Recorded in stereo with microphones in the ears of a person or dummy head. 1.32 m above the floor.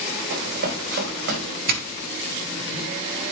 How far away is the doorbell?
About 1.2 m.